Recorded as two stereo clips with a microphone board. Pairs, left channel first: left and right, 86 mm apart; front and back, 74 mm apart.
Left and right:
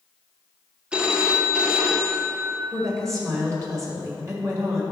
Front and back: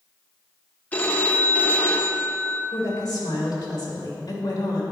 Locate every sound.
0.9 s a phone ringing: 30° right, 0.7 m
2.7 s a woman speaking: 40° right, 2 m